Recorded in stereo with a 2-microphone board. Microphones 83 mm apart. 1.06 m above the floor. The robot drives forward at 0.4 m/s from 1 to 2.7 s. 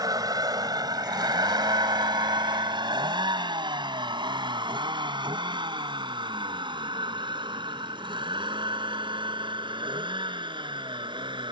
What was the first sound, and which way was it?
A vehicle, 50° right (ahead or behind).